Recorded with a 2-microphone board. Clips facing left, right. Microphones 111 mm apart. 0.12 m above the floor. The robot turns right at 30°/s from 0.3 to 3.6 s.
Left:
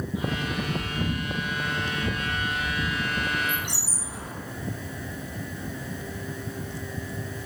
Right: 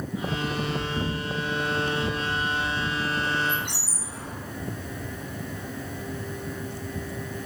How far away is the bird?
About 0.9 m.